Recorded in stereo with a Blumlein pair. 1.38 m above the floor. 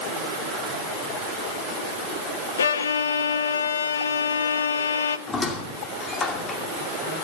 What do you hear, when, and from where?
2.6 s a violin: 70° left, 0.9 m
5.3 s a squeak: 20° left, 2.5 m